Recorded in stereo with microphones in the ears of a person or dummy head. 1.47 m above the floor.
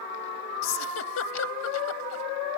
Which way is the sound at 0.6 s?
80° left.